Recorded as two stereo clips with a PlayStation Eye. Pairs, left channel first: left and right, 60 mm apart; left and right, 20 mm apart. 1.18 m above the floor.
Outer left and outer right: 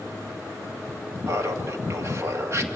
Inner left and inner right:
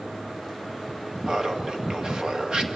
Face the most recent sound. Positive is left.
turn(degrees=-45)  # may be behind; listen again after turning